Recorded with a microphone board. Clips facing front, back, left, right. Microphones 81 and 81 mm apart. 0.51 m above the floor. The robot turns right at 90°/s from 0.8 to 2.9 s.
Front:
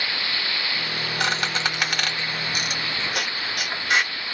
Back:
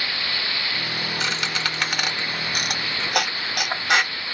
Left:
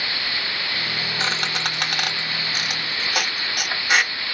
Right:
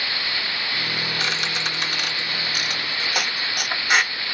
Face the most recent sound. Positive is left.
turn(degrees=180)